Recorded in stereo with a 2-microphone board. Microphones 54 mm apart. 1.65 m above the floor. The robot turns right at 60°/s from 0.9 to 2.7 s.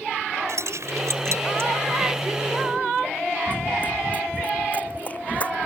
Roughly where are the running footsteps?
Left.